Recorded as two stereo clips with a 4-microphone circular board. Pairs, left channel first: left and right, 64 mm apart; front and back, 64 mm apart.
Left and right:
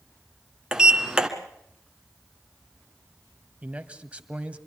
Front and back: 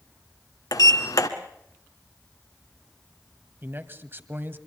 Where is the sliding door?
15° right, 1.6 m.